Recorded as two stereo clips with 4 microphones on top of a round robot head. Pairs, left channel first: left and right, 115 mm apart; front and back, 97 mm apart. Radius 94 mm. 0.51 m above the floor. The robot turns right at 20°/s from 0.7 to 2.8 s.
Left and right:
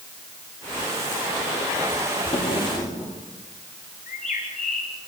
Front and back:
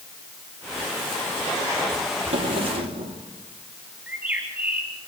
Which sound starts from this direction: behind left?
A drawer, at 2.3 s.